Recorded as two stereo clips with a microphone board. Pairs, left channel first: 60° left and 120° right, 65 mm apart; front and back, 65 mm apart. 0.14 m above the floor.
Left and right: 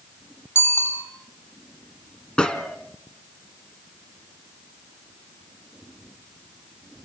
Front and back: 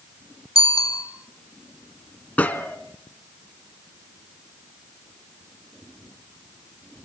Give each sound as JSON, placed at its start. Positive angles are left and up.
{"t": 0.6, "sound": "a bicycle bell", "azimuth_deg": 10, "distance_m": 4.0}
{"t": 2.4, "sound": "a gunshot", "azimuth_deg": 10, "distance_m": 1.7}